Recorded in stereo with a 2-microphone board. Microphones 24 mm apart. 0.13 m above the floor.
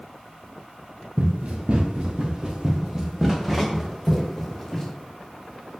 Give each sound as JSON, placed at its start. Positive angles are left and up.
{"t": 1.2, "sound": "running footsteps", "side_deg": -55, "distance_m": 2.5}